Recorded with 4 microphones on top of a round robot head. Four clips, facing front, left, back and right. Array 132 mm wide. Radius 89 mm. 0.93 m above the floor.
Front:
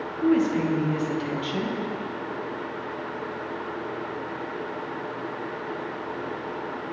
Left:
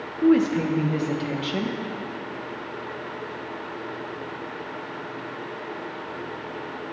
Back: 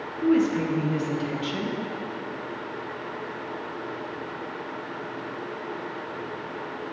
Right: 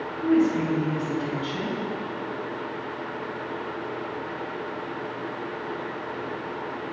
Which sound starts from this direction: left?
A woman speaking, at 0.2 s.